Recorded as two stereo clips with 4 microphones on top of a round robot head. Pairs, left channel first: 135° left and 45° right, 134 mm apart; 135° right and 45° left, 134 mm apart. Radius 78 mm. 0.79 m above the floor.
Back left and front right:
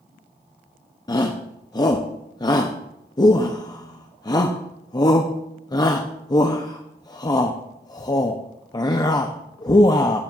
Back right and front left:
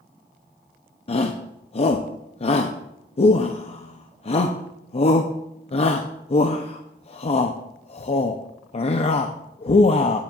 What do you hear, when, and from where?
1.1 s a shout: 170° right, 0.6 m